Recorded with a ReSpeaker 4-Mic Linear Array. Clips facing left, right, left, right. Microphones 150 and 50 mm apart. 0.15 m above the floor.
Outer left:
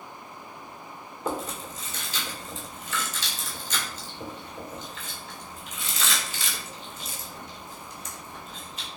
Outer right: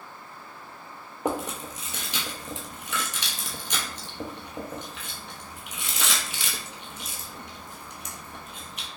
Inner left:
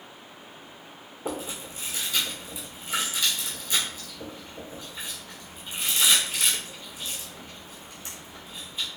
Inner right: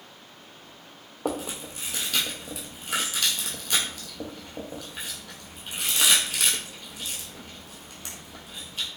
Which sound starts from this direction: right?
Chewing, at 1.2 s.